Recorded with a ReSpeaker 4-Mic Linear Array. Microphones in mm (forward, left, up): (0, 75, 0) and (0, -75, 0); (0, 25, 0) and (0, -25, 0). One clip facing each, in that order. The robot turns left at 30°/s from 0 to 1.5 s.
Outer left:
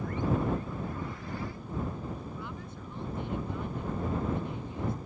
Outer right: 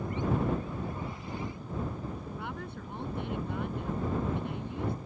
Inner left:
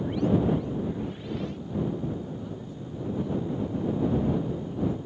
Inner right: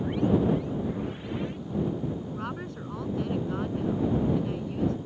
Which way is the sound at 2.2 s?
65° right (ahead or behind).